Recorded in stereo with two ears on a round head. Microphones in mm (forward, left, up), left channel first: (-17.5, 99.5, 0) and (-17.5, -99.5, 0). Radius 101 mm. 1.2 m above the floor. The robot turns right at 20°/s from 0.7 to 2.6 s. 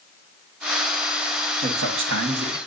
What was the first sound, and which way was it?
A man speaking, 60° right (ahead or behind).